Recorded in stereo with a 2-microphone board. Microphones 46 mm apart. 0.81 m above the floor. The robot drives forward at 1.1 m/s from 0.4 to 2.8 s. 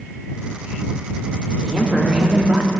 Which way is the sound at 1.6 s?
10° right (ahead or behind).